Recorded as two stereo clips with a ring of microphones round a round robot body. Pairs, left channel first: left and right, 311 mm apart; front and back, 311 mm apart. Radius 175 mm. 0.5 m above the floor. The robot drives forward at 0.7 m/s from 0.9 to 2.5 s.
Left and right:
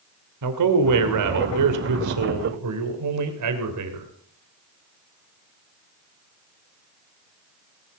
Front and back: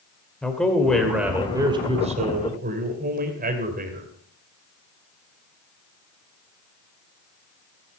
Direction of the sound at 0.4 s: 85° right.